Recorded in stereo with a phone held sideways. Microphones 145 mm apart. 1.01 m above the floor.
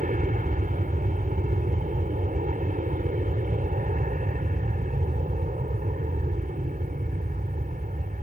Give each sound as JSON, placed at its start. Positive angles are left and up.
{"t": 0.0, "sound": "an aircraft", "side_deg": -70}